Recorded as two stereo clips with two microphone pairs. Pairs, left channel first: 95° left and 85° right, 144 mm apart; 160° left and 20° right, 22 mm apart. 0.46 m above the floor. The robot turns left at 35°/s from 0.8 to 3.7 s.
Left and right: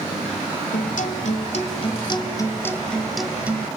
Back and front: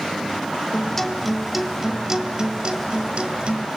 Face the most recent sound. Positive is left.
turn(degrees=-15)